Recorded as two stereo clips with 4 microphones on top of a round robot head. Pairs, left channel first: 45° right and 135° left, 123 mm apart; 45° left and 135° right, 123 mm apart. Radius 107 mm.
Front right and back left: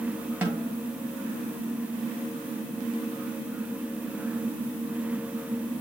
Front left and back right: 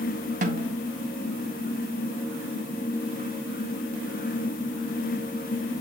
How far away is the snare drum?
About 1.3 m.